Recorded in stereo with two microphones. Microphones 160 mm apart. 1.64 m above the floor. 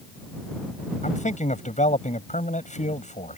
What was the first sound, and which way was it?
A man speaking, 50° left (ahead or behind).